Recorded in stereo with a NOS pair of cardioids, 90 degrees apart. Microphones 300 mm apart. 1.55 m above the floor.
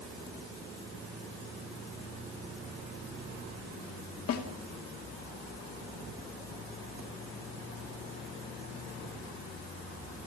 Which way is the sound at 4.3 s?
55° left.